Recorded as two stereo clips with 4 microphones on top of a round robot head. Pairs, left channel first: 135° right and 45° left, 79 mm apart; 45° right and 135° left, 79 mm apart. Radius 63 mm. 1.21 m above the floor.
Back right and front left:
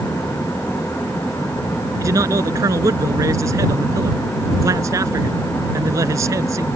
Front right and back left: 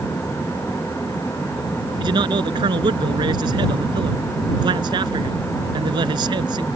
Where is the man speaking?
100° left.